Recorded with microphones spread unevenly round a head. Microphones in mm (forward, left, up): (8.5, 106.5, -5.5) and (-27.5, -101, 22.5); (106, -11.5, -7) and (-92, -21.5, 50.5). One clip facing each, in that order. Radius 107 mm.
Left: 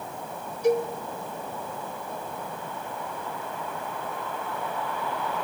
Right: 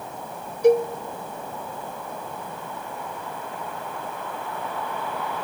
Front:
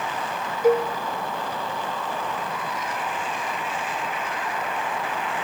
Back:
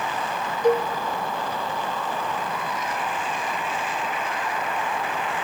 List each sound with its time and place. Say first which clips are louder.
0.6 s a cowbell: right 6 dB, front 1 dB; 90° right, 0.8 m